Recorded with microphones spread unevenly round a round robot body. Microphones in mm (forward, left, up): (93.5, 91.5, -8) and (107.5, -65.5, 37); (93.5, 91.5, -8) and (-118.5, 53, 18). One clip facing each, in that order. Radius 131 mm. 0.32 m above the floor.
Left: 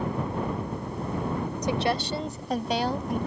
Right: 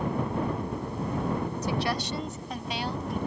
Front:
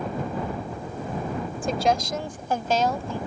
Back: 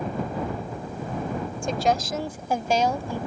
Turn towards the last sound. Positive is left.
turn(degrees=110)